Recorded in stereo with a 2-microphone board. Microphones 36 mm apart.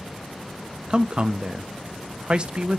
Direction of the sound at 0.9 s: 25° right (ahead or behind).